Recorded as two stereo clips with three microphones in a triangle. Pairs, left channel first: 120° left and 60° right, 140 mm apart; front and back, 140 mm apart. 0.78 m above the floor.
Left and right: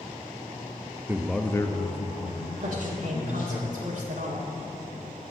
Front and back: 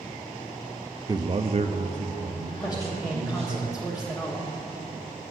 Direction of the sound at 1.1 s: 125° right.